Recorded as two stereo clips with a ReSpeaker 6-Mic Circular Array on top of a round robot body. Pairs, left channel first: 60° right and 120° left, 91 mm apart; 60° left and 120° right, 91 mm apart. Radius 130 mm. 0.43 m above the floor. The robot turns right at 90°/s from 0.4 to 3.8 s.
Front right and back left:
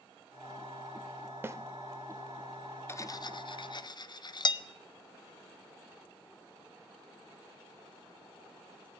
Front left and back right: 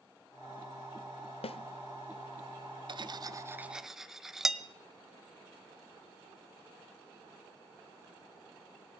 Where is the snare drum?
55° left, 0.6 m; by 1.6 s 65° left, 0.6 m.